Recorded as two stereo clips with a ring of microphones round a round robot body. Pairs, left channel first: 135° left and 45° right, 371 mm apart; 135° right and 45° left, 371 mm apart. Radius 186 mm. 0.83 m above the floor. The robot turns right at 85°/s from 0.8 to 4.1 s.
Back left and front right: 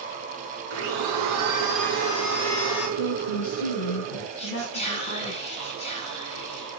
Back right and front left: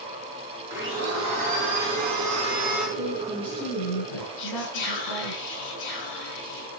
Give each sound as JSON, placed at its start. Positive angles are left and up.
{"t": 0.7, "sound": "a blender", "azimuth_deg": -40, "distance_m": 4.5}
{"t": 3.0, "sound": "a woman speaking", "azimuth_deg": 100, "distance_m": 9.0}
{"t": 4.4, "sound": "whispering", "azimuth_deg": -150, "distance_m": 9.0}